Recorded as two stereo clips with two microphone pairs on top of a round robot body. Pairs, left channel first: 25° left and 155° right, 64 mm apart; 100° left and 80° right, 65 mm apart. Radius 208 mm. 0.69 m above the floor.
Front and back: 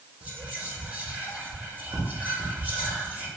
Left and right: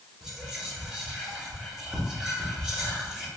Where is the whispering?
160° right, 1.1 m.